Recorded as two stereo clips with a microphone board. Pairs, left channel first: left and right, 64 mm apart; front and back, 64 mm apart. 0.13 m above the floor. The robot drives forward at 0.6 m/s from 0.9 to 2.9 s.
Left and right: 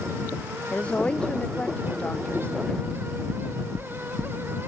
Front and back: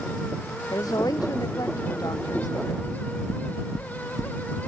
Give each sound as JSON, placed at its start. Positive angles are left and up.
{"t": 0.7, "sound": "a woman speaking", "azimuth_deg": 20}
{"t": 2.8, "sound": "knocking", "azimuth_deg": -20}